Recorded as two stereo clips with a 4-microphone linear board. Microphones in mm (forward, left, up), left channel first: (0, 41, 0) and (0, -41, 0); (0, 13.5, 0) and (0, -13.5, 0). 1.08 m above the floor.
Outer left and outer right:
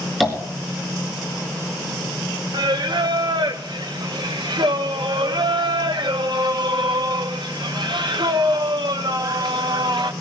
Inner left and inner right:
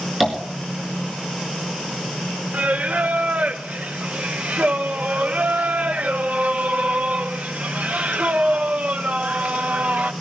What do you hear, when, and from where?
0.2 s tapping: centre (ahead or behind), 4 m
2.5 s singing: 65° right (ahead or behind), 0.8 m